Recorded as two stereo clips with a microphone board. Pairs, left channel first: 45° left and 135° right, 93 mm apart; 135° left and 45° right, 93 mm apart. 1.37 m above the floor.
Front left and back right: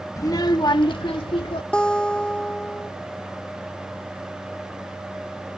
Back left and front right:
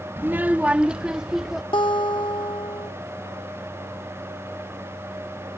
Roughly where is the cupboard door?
No cupboard door in this recording.